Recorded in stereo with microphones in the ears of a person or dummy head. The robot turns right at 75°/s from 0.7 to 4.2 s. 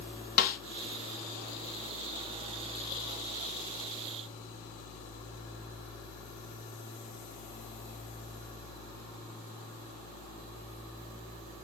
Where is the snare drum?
40° left (ahead or behind), 0.6 m.